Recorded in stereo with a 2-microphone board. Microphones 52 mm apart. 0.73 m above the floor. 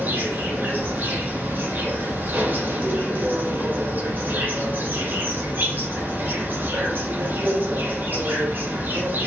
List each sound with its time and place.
0.0 s an insect: 45° right (ahead or behind), 1.5 m